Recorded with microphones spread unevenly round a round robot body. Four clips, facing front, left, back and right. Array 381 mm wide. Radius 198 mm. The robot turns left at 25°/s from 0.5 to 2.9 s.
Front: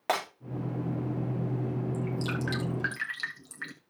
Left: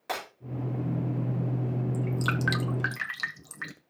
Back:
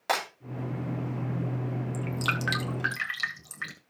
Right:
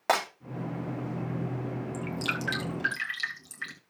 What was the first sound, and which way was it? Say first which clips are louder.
Breaking glass: right 8 dB, back 1 dB; 80° right.